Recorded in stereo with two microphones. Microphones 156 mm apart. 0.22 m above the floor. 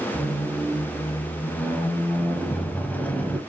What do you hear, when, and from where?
0.1 s a squeak: 10° left (ahead or behind), 0.6 m